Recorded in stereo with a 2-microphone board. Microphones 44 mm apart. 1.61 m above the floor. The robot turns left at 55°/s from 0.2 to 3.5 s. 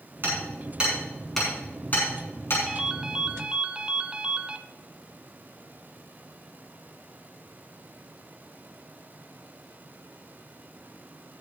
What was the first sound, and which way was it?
Hammering, 50° right (ahead or behind).